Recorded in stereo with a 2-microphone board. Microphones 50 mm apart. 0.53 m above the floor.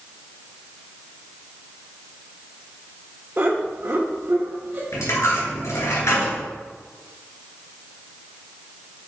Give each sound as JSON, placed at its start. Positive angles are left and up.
{"t": 3.4, "sound": "laughter", "side_deg": -45, "distance_m": 1.2}
{"t": 4.9, "sound": "a dropped coin", "side_deg": 85, "distance_m": 2.0}